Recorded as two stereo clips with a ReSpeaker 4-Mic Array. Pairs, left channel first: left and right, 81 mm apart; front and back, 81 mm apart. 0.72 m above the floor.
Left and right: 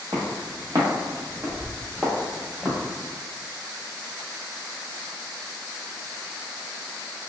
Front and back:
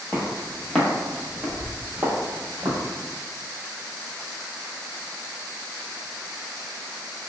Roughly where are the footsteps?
Ahead right.